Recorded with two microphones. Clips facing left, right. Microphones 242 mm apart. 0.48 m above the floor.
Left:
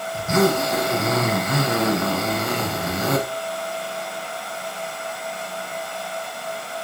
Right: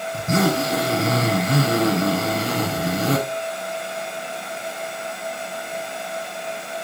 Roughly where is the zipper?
Right.